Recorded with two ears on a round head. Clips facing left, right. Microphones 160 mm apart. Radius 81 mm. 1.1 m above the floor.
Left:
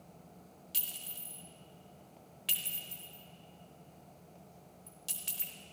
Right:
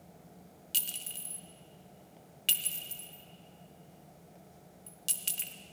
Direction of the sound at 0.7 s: 30° right (ahead or behind).